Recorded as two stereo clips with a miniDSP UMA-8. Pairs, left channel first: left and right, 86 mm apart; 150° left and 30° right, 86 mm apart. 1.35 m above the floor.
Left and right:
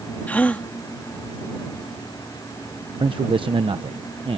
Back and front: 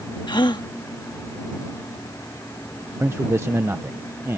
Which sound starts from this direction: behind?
A gasp, at 0.3 s.